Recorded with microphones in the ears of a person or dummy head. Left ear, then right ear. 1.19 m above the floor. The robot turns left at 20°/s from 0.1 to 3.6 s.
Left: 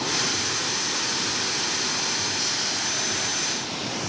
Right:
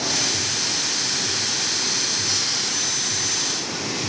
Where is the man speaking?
No man speaking in this recording.